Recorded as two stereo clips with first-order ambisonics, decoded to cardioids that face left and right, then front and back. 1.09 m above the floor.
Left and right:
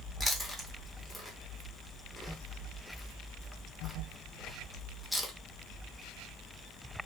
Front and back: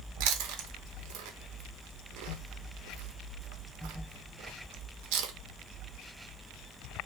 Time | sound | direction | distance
0.2 | chewing | 175° left | 0.6 m